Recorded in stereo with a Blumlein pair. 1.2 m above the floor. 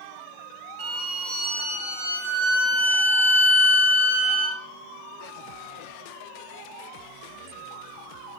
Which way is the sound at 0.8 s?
50° right.